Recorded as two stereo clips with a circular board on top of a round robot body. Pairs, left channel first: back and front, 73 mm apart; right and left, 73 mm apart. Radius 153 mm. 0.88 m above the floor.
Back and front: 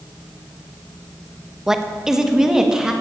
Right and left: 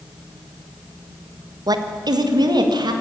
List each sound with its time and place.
1.7 s a woman speaking: 85° left, 1.3 m; by 2.9 s 80° left, 2 m